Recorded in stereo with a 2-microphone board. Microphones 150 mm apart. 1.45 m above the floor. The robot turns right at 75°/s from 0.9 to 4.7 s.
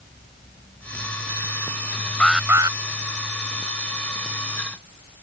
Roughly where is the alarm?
Behind.